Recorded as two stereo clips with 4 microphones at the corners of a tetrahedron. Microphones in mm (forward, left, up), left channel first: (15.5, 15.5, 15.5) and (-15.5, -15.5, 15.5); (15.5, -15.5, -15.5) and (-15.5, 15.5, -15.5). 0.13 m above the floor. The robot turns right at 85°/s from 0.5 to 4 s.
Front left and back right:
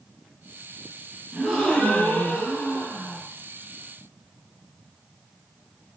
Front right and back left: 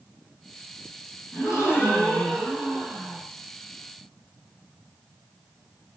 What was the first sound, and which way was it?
A gasp, 55° right.